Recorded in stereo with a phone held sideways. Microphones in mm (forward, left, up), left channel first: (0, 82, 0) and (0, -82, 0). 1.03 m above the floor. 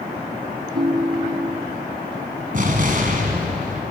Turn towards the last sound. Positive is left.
turn(degrees=-55)  # may be behind; listen again after turning